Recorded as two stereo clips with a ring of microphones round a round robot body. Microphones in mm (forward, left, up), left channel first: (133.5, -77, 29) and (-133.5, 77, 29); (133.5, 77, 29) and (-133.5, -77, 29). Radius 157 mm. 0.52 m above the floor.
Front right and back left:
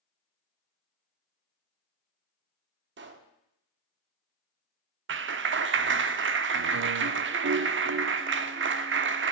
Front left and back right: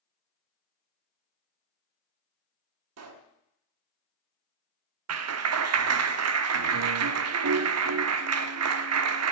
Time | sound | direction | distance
3.0 | a pop | 165° right | 1.3 m
5.1 | a clap | 170° right | 0.7 m